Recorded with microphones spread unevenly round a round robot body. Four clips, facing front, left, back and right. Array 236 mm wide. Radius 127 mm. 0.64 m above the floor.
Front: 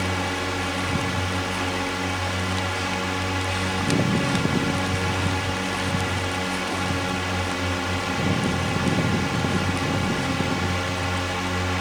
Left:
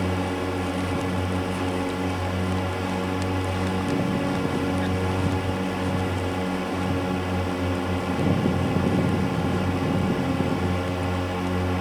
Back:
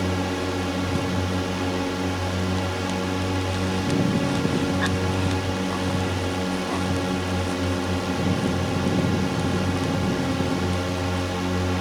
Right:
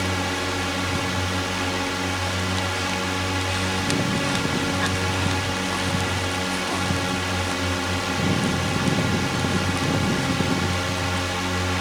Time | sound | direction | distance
0.0 | a drone | 150° left | ?